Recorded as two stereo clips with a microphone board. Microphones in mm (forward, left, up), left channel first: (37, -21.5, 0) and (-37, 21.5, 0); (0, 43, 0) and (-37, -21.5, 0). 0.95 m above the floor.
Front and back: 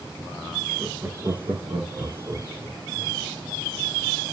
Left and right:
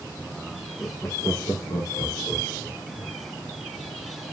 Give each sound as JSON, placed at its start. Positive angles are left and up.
{"t": 0.8, "sound": "laughter", "azimuth_deg": 100, "distance_m": 0.9}